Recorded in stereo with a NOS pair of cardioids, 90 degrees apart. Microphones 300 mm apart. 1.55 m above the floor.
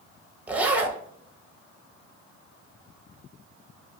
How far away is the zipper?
About 0.7 m.